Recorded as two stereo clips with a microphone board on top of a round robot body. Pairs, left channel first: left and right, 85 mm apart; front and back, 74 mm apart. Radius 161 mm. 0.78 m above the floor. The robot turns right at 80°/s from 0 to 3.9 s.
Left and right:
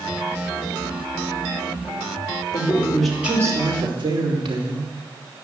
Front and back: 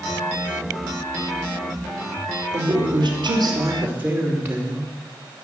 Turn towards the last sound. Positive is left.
turn(degrees=-115)